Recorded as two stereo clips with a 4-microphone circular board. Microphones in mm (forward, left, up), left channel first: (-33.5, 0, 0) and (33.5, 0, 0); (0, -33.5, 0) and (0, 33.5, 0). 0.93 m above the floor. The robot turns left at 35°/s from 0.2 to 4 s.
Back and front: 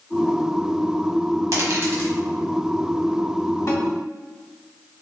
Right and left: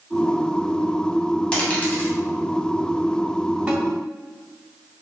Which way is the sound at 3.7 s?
160° left.